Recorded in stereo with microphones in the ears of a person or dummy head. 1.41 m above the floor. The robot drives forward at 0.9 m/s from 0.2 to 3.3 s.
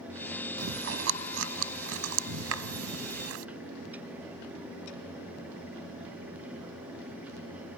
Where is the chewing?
70° right (ahead or behind); by 3.5 s 80° right.